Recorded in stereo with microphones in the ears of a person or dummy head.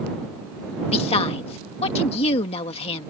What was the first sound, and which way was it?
A woman speaking, 35° left (ahead or behind).